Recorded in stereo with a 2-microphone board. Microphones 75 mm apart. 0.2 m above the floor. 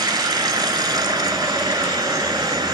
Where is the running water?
70° right (ahead or behind), 1.0 m.